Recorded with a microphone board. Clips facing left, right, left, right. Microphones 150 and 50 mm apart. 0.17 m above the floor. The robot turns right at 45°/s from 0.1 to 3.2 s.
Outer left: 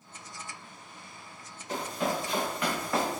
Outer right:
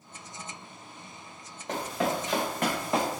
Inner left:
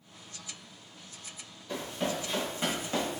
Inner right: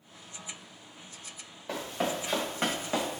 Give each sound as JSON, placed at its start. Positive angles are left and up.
{"t": 1.7, "sound": "running footsteps", "side_deg": -75, "distance_m": 1.4}